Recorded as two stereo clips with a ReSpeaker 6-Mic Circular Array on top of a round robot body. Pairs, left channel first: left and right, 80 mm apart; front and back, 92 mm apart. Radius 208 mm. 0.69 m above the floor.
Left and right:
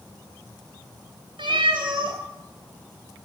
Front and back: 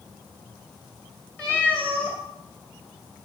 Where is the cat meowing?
75° right, 2 m.